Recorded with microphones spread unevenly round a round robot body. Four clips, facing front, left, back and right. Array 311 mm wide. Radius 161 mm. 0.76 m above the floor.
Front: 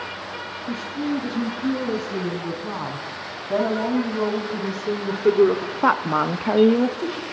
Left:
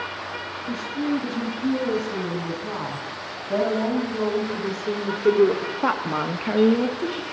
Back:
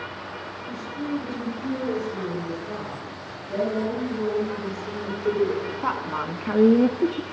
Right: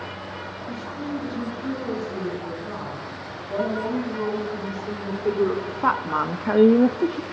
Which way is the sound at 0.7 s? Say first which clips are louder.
Left 6 dB, front 4 dB; 30° left.